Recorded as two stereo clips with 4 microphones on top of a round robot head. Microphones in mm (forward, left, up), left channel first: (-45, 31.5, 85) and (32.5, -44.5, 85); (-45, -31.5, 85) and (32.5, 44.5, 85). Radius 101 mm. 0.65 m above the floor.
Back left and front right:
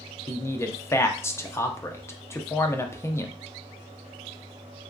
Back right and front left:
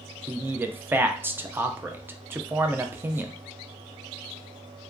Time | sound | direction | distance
0.3 | a man speaking | 95° left | 0.5 m